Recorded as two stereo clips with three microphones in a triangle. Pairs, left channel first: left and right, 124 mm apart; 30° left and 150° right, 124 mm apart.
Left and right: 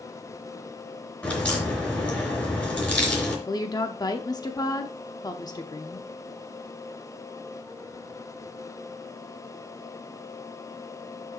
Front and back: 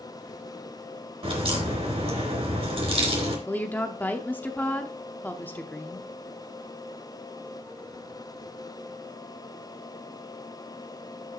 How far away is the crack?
About 3.5 m.